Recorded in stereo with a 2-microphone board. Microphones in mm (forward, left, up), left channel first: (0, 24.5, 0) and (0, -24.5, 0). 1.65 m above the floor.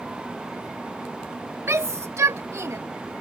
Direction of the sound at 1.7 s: 65° right (ahead or behind).